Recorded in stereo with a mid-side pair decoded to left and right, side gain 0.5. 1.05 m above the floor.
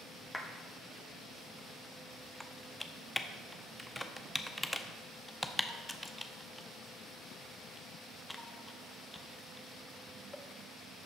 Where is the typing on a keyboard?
5° left, 0.8 m.